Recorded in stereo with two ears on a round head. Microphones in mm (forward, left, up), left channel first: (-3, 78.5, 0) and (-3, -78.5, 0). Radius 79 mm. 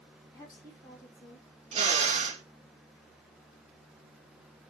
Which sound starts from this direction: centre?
A woman speaking, at 0.3 s.